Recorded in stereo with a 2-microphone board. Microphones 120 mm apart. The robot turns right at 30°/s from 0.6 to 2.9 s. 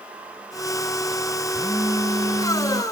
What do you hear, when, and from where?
1.5 s a phone buzzing: 165° right; by 2.8 s 125° right